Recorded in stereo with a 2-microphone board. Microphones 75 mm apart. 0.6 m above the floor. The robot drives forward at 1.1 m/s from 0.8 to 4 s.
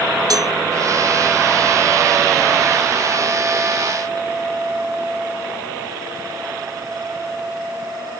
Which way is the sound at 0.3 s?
55° right (ahead or behind).